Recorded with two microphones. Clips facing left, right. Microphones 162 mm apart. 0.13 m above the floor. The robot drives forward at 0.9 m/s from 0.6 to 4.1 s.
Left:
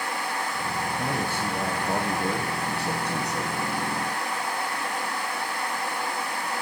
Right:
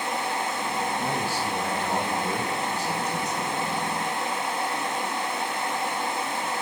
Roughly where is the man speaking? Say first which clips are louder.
Even; left.